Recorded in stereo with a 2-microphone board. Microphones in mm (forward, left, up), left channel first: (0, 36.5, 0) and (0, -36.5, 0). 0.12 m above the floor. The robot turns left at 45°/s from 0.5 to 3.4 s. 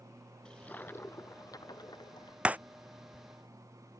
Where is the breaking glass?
15° right (ahead or behind); by 2.6 s 20° right (ahead or behind).